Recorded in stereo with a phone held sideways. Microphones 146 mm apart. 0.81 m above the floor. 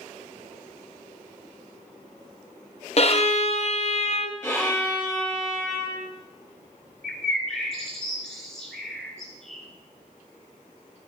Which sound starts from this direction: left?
A violin, at 3.0 s.